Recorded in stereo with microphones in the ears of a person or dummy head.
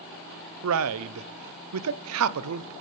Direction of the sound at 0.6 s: 75° right (ahead or behind).